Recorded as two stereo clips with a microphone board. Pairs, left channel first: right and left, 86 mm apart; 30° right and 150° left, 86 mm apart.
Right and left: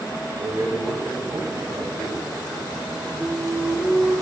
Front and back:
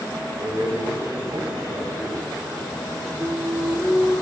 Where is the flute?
170° left, 3.5 m.